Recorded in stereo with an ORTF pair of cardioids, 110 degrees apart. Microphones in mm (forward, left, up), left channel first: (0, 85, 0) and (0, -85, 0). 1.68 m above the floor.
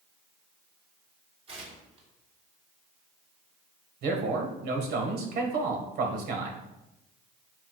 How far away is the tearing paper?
About 3 m.